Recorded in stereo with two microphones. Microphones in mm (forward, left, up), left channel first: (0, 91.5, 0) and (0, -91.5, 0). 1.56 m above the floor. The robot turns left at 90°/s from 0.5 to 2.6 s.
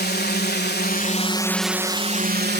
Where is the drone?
105° left; by 2.6 s 85° right.